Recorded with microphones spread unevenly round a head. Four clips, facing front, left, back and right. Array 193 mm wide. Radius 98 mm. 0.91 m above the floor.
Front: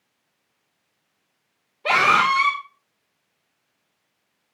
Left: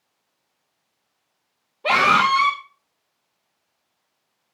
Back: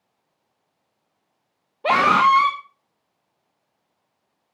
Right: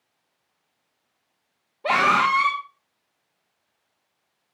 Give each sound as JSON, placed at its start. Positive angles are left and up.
{"t": 1.8, "sound": "a scream", "azimuth_deg": 180, "distance_m": 1.9}